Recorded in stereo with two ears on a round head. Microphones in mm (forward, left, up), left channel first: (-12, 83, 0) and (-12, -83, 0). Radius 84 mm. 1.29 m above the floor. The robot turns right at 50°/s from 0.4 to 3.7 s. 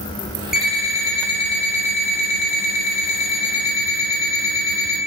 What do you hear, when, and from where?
0.5 s an alarm clock: 5° right, 0.6 m; by 5.0 s 155° left, 0.6 m